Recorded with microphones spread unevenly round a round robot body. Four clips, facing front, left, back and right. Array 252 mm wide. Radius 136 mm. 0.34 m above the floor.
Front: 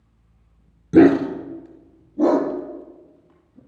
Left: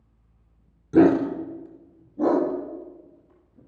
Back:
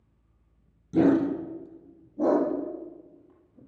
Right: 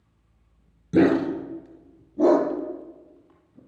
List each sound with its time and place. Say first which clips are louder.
0.9 s a dog barking: left 2 dB, front 8 dB; 15° right, 1.6 m; by 3.6 s 60° right, 3.5 m